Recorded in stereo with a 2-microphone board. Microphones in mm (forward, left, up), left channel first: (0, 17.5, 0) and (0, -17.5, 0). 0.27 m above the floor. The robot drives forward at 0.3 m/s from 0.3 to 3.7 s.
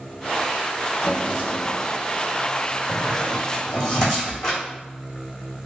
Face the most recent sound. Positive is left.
turn(degrees=10)  # may be behind; listen again after turning